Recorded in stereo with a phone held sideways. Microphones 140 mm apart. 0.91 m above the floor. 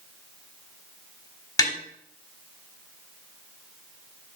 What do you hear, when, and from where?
1.6 s tapping: 25° left (ahead or behind), 1.3 m